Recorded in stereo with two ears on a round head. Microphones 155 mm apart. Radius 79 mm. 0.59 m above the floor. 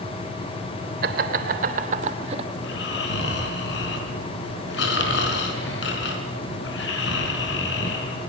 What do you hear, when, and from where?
1.0 s laughter: 60° right (ahead or behind), 2.5 m; by 2.5 s 35° right (ahead or behind), 2 m
2.6 s snoring: 70° left (ahead or behind), 4.5 m